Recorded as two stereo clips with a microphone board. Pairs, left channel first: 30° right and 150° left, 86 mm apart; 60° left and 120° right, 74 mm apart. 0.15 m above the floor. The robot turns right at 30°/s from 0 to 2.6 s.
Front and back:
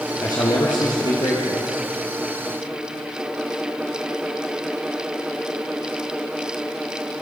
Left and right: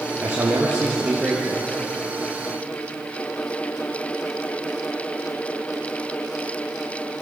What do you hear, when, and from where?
0.2 s a man speaking: 70° right, 3.5 m; by 1.7 s 25° right, 3.5 m